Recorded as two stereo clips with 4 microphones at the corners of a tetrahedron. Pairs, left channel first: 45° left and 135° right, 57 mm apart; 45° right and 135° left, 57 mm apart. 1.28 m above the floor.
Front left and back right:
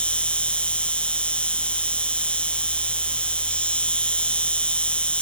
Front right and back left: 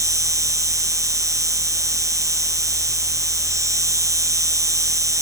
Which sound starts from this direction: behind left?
An insect, at 0.0 s.